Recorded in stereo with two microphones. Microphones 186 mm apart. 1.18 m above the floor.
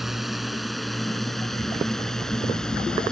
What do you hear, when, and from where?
0.0 s a drone: centre (ahead or behind); by 3.1 s 5° left (ahead or behind)